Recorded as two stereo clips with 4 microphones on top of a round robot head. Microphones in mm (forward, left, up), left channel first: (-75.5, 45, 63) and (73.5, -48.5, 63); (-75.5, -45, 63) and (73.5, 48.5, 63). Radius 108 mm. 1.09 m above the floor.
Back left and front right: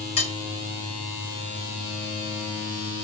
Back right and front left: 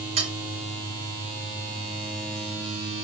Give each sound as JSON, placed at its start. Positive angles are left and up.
{"t": 0.2, "sound": "cutlery clinking", "azimuth_deg": 90, "distance_m": 1.5}